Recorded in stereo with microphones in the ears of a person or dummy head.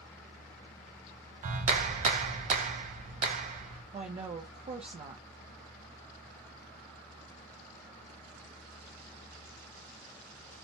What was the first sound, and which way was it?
A clap, 40° right (ahead or behind).